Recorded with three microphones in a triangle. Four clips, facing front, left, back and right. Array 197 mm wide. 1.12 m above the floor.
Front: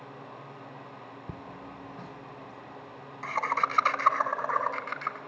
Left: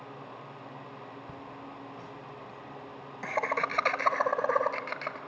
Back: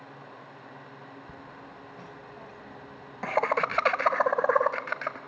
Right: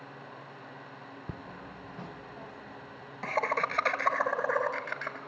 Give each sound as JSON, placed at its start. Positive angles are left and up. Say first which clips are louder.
{"t": 1.3, "sound": "laughter", "louder": "left 1 dB, front 3 dB", "azimuth_deg": -50, "distance_m": 1.0}